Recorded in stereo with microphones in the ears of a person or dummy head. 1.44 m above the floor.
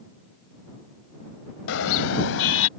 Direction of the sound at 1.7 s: 80° left.